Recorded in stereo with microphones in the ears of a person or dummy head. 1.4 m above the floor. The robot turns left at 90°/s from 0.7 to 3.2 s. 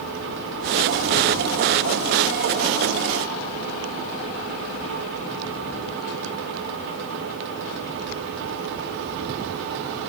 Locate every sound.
Only background noise.